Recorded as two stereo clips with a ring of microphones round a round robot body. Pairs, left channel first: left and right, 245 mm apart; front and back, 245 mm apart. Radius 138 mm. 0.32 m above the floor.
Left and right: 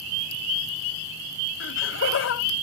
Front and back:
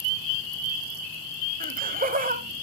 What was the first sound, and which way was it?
Laughter, 125° left.